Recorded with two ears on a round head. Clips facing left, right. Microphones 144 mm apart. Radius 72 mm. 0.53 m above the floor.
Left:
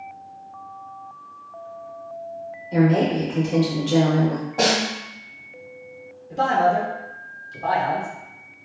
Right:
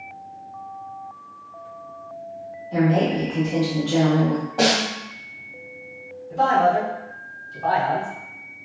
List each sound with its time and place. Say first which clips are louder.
2.7 s a woman speaking: left 1 dB; 20° left (ahead or behind), 0.7 m
4.6 s a snare drum: even; centre (ahead or behind), 1.3 m
6.3 s a man speaking: right 1 dB; 25° left (ahead or behind), 1.1 m